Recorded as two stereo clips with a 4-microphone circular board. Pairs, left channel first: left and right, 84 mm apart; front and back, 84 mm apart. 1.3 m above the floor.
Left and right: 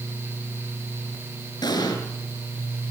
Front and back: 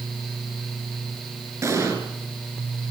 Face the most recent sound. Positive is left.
turn(degrees=125)